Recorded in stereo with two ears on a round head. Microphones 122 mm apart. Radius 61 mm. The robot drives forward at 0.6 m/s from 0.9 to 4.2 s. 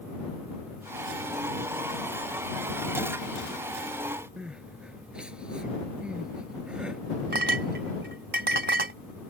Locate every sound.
4.4 s crying: 5° right (ahead or behind)
7.3 s a clink: 80° right